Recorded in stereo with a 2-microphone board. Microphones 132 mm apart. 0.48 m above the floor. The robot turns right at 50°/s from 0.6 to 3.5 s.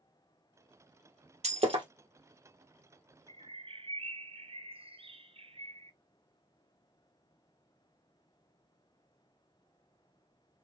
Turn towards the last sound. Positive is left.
turn(degrees=-45)  # may be behind; listen again after turning